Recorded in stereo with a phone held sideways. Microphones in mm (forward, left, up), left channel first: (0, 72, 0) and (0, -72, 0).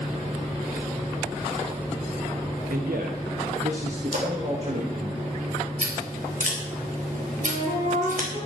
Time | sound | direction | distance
2.7 | a man speaking | 80° right | 1.1 m
4.1 | a splash | 65° right (ahead or behind) | 3 m
5.8 | scissors | 70° right (ahead or behind) | 3.5 m
7.4 | a flute | 55° right (ahead or behind) | 6 m